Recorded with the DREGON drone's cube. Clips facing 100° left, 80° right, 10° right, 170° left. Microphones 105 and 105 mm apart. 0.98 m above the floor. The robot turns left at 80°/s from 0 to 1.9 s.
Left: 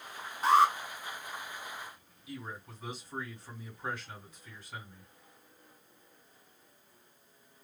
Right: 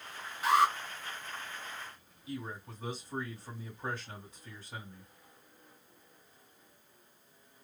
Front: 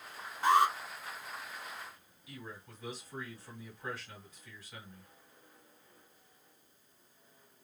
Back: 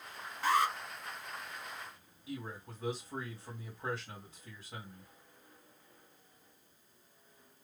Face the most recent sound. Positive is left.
turn(degrees=-130)